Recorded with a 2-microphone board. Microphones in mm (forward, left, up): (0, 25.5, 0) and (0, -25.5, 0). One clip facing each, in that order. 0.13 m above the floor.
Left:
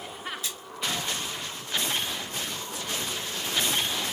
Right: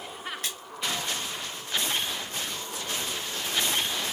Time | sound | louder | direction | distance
0.4 | a splash | right 1 dB | 50° right (ahead or behind) | 0.8 m